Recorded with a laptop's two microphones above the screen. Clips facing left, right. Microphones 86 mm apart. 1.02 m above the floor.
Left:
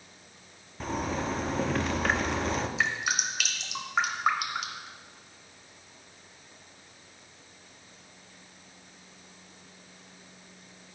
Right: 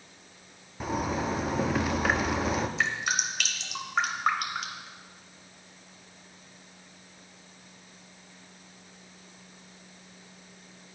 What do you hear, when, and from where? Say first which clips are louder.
0.8 s a zipper: right 2 dB; 5° right (ahead or behind), 0.5 m
2.8 s dripping: even; centre (ahead or behind), 0.8 m